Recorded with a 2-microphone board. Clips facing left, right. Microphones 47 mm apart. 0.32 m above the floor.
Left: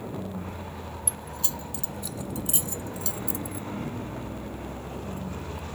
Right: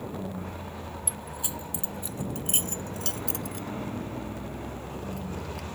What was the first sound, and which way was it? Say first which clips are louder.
Keys jangling: even; 10° right (ahead or behind).